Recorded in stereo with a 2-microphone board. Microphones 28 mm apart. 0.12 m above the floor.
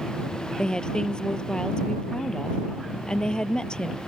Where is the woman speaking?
35° left (ahead or behind).